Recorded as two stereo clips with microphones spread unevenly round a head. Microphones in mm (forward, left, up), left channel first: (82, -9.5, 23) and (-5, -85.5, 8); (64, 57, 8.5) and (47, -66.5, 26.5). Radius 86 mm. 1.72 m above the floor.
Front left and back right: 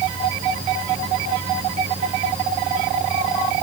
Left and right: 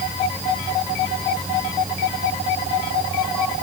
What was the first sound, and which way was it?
Only background noise.